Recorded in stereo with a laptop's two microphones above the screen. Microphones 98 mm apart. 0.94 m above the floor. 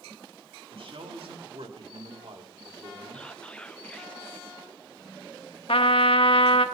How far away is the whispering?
About 0.8 m.